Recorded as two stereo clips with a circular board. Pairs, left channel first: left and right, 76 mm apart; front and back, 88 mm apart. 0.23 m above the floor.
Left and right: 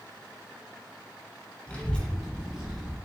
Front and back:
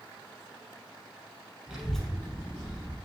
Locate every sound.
1.7 s a child speaking: 120° left, 0.6 m; by 3.0 s 15° right, 0.8 m